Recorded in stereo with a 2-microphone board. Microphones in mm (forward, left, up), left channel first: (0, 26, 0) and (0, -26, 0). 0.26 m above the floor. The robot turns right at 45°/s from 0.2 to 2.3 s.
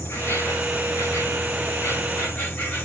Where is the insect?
45° left, 9 m; by 2.9 s 140° left, 9 m.